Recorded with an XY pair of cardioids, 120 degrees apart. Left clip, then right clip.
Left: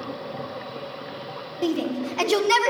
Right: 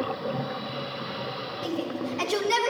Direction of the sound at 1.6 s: 70° left.